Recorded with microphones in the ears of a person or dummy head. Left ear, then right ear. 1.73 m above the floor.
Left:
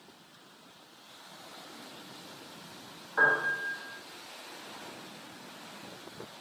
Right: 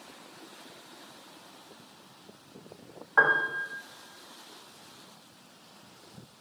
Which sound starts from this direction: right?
A piano, at 3.2 s.